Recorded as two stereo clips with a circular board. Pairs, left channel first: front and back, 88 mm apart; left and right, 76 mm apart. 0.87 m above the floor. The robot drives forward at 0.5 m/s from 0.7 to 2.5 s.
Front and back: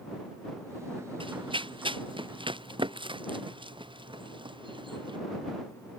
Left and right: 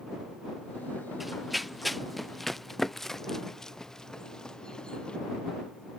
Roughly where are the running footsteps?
Behind.